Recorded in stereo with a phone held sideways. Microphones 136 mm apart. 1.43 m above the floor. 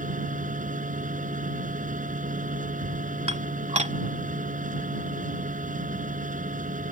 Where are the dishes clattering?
55° right (ahead or behind).